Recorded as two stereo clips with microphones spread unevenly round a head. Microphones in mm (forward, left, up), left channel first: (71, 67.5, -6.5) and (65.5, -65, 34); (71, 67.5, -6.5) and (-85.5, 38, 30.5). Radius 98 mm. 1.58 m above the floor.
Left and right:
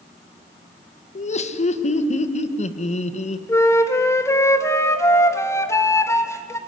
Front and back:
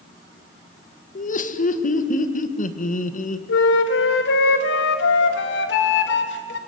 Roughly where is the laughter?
Ahead left.